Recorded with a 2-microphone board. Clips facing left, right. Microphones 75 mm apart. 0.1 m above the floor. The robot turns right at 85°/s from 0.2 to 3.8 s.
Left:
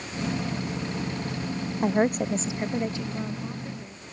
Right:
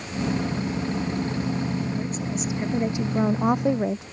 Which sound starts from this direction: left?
A woman speaking, at 1.8 s.